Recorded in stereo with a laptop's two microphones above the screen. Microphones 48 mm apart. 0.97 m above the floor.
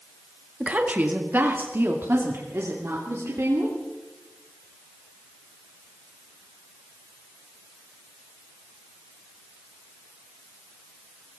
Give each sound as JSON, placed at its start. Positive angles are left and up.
{"t": 0.6, "sound": "a woman speaking", "side_deg": -30, "distance_m": 1.7}